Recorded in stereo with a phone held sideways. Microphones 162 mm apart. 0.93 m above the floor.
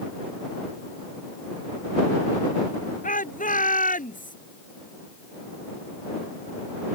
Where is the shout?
55° left (ahead or behind).